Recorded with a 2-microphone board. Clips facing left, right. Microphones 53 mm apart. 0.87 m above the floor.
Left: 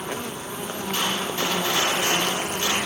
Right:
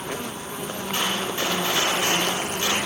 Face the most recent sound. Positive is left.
turn(degrees=-20)  # may be behind; listen again after turning